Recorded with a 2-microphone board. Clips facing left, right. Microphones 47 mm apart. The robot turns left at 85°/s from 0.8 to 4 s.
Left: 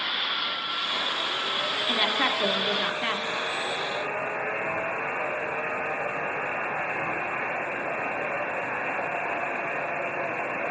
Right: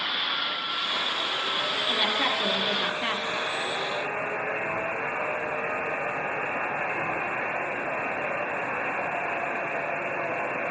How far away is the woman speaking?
About 1.3 m.